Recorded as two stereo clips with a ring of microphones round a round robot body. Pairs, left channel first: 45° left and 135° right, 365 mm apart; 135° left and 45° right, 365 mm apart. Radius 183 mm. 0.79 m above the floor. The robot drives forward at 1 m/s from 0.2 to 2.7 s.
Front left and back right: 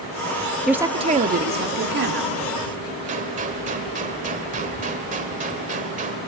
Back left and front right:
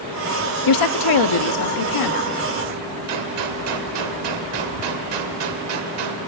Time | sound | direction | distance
0.7 | a woman speaking | 135° left | 0.8 m
3.1 | a gunshot | 65° right | 1.8 m